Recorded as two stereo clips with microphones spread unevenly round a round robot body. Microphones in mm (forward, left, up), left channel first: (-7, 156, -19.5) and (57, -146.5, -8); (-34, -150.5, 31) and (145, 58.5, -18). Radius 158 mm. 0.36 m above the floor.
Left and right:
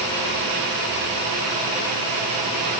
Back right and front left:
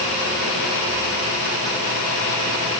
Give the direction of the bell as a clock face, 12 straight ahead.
No bell in this recording.